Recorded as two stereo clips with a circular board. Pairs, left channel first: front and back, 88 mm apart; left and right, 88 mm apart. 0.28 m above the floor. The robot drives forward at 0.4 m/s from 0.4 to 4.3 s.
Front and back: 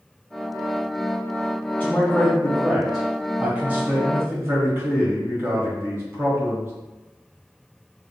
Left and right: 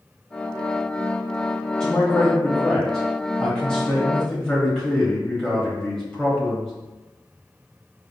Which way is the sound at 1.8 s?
20° left.